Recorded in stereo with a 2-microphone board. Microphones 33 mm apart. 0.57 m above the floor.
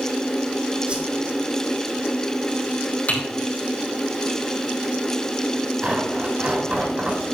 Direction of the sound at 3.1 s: 50° left (ahead or behind).